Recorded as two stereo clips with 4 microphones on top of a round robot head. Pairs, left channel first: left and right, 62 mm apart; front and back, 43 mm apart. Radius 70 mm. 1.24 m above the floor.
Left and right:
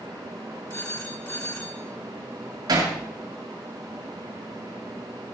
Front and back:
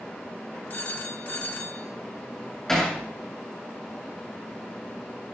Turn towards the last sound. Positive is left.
turn(degrees=-85)